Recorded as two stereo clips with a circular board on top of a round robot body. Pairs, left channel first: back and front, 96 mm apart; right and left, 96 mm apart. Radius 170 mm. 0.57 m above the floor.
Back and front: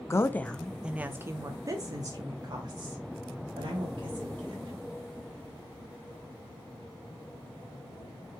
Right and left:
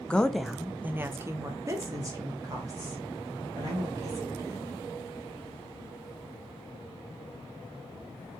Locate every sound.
0.1 s a woman speaking: 160° right, 0.6 m; by 4.7 s 40° left, 2 m